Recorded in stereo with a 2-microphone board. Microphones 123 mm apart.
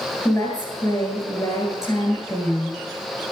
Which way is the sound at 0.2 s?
25° left (ahead or behind).